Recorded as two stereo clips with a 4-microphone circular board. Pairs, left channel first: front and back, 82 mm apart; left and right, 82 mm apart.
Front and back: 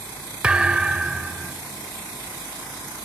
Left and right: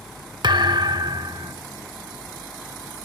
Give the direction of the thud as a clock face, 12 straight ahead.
3 o'clock.